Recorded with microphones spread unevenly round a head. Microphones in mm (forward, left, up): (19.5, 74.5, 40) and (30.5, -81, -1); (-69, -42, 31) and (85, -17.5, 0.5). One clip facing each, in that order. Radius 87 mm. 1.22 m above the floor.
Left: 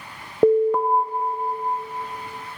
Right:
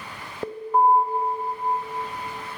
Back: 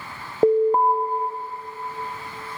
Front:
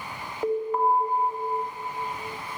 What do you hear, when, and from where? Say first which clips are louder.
0.4 s an alarm: left 5 dB, back 8 dB; 125° left, 0.6 m